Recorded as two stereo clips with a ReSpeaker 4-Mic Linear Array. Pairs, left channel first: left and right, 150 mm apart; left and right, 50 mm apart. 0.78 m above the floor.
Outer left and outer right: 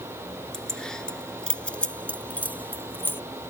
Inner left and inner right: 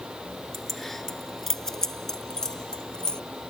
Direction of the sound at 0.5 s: 5° left (ahead or behind).